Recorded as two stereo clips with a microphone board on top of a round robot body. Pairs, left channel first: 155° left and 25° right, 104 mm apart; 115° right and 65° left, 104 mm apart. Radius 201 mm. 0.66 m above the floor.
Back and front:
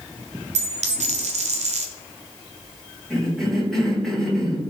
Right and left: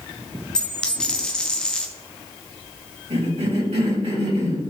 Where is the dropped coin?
30° right, 0.8 m.